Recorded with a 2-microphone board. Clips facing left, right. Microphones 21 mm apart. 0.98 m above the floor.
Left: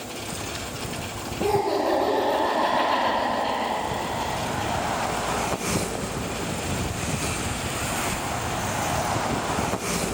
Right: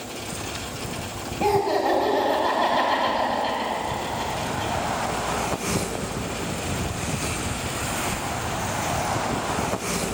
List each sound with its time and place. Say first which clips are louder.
1.4 s laughter: right 2 dB; 65° right (ahead or behind), 3 m